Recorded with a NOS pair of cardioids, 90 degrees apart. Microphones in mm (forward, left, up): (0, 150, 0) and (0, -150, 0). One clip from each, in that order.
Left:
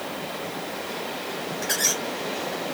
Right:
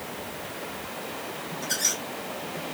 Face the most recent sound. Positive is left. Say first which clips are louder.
# left 3 dB
turn(degrees=65)